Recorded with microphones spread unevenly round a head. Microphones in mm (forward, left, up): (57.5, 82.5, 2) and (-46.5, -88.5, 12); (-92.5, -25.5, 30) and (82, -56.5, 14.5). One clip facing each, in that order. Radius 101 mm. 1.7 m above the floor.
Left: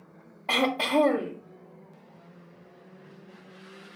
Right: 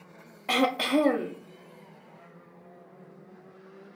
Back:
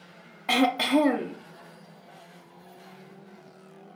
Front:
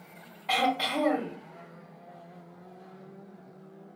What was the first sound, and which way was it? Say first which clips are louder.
Throat clearing: right 1 dB, back 6 dB; 170° left.